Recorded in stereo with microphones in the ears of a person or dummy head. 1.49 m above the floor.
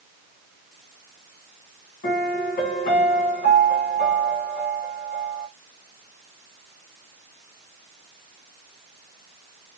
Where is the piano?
35° left (ahead or behind), 1.5 m.